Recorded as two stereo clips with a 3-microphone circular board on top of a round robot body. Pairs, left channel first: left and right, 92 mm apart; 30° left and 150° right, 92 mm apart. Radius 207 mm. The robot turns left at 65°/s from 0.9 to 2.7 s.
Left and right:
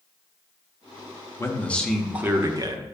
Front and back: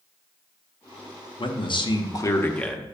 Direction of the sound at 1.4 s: 35° left.